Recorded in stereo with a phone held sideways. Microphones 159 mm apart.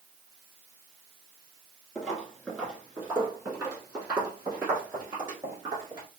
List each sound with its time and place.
1.9 s footsteps: centre (ahead or behind), 1.7 m; by 6.1 s 30° right (ahead or behind), 3.5 m